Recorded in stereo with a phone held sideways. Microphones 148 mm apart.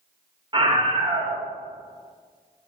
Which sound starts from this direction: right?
A scream, at 0.5 s.